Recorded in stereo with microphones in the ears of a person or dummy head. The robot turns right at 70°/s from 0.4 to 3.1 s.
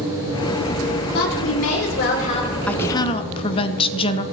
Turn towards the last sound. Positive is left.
turn(degrees=40)